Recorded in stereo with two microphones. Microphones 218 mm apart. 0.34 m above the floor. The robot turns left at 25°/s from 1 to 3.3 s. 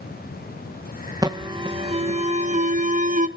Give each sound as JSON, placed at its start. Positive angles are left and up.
{"t": 1.2, "sound": "an alarm", "azimuth_deg": -30, "distance_m": 0.8}